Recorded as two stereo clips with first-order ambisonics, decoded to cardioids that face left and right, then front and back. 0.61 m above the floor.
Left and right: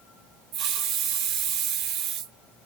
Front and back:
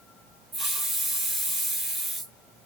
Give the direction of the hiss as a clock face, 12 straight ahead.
4 o'clock.